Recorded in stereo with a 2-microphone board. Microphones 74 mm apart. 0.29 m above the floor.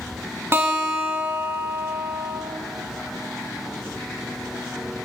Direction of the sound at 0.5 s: 35° right (ahead or behind).